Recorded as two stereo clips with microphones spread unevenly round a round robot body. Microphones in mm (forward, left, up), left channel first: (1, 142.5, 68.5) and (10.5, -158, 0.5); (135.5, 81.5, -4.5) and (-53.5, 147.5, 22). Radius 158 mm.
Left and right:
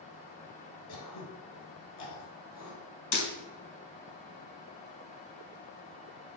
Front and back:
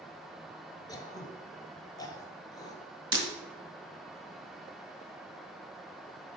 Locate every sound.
0.9 s throat clearing: 55° left, 1.5 m
3.1 s breaking glass: 90° left, 2 m